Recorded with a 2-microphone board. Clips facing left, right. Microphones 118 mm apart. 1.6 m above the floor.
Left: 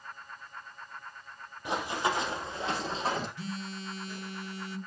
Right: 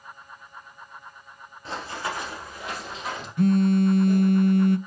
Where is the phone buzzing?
55° right (ahead or behind), 0.6 m.